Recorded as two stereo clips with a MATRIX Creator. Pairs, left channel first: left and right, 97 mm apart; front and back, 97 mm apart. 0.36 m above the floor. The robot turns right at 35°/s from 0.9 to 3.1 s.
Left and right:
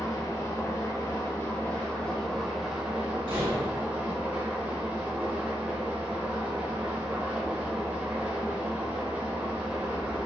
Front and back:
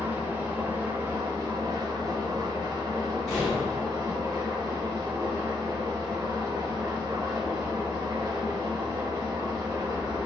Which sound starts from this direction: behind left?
An engine running, at 0.0 s.